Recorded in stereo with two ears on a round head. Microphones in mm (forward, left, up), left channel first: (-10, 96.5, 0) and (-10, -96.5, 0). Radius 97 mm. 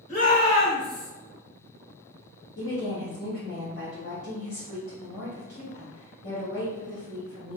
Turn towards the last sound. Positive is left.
turn(degrees=45)  # may be behind; listen again after turning